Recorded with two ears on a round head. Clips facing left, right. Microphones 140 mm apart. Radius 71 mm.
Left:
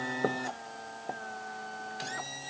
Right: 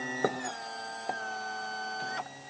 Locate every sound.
Only background noise.